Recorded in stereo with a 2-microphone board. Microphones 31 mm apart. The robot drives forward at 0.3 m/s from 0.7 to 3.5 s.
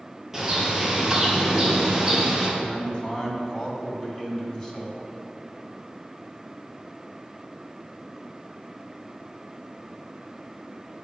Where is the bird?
10° right (ahead or behind), 2 m.